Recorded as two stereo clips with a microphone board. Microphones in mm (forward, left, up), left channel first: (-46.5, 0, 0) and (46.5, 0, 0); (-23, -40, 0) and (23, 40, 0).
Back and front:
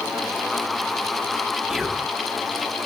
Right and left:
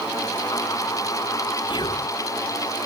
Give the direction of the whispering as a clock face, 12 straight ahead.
3 o'clock.